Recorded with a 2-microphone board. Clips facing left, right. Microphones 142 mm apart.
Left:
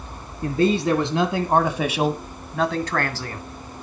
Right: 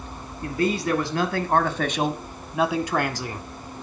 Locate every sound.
0.4 s a man speaking: 30° left (ahead or behind), 2.5 m; by 3.4 s 20° right (ahead or behind), 2 m